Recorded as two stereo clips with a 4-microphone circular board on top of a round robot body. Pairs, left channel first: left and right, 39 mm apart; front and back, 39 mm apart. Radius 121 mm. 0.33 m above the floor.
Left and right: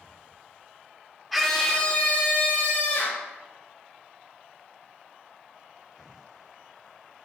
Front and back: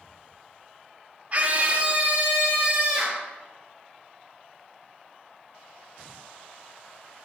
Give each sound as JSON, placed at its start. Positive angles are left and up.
{"t": 1.3, "sound": "a scream", "azimuth_deg": 180, "distance_m": 1.2}